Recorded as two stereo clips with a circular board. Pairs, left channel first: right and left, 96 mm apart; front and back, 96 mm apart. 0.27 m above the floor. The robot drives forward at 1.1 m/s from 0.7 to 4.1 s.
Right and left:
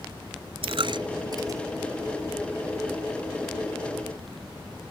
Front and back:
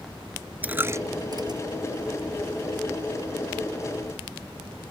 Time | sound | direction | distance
0.6 | a dropped coin | 105° left | ?